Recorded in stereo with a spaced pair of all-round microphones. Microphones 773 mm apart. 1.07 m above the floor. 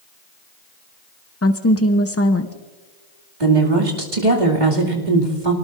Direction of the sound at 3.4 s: 70° right (ahead or behind).